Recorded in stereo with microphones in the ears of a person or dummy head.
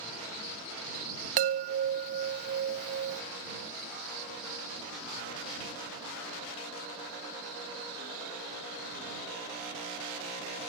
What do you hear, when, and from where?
1.4 s a chime: 45° right (ahead or behind)